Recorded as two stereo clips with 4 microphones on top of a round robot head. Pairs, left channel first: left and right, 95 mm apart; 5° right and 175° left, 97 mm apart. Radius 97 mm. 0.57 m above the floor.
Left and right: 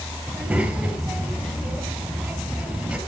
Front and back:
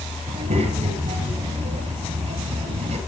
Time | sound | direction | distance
0.3 | a child speaking | 170° right | 6.5 m